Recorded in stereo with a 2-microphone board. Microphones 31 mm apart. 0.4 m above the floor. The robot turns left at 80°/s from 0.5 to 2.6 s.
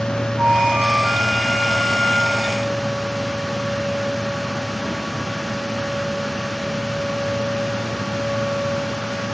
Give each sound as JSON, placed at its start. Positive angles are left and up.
{"t": 0.4, "sound": "a flute", "azimuth_deg": -85, "distance_m": 9.0}